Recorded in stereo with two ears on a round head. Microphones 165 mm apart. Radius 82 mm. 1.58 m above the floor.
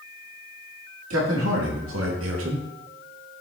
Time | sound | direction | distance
1.1 | a man speaking | 85° right | 3 m